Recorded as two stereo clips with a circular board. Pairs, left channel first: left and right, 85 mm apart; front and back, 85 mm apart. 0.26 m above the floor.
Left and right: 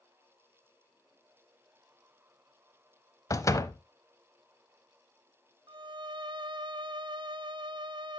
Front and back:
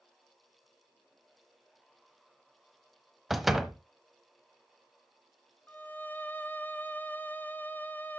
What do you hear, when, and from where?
3.3 s a door slam: 95° left, 1.0 m
5.7 s a violin: 70° right, 0.7 m